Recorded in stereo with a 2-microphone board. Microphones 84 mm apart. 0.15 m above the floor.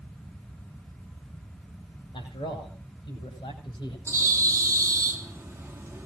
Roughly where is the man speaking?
Left.